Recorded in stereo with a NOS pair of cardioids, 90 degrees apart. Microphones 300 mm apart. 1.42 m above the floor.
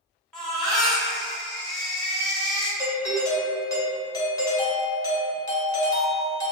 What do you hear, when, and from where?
0.3 s a baby crying: straight ahead, 0.9 m
2.8 s a doorbell: 10° left, 0.7 m